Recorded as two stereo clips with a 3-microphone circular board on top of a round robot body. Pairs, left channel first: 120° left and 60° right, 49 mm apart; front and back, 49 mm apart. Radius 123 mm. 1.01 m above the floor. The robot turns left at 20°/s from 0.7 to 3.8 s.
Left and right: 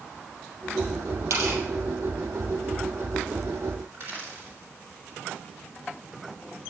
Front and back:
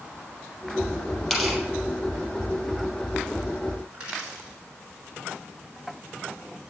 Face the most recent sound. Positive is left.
turn(degrees=-120)